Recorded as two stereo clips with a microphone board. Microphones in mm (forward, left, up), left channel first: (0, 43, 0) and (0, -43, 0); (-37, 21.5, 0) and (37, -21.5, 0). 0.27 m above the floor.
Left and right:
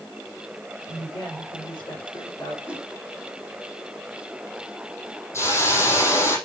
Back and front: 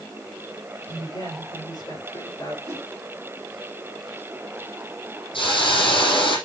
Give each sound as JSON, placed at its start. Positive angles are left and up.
{"t": 0.9, "sound": "a woman speaking", "azimuth_deg": 120, "distance_m": 6.0}
{"t": 2.7, "sound": "a whoosh", "azimuth_deg": -20, "distance_m": 1.7}
{"t": 5.3, "sound": "a hiss", "azimuth_deg": 145, "distance_m": 5.5}